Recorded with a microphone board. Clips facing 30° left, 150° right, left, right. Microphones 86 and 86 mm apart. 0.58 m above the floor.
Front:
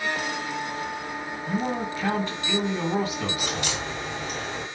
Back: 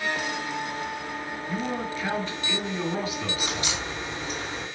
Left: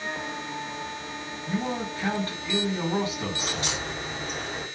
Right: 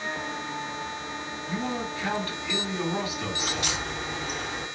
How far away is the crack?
About 3.5 m.